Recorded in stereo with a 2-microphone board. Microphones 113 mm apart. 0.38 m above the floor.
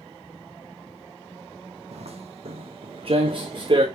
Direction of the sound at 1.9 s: 70° right (ahead or behind).